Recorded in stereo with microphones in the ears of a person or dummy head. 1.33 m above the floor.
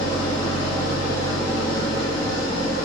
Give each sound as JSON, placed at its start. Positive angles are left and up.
{"t": 0.0, "sound": "an engine running", "side_deg": 45, "distance_m": 1.2}